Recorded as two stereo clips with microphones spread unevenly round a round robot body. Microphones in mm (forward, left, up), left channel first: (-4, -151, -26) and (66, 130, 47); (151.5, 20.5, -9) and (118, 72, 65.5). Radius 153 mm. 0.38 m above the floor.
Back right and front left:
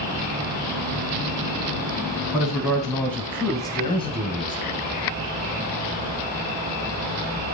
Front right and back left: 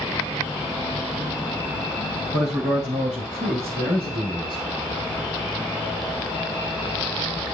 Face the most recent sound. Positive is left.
turn(degrees=-155)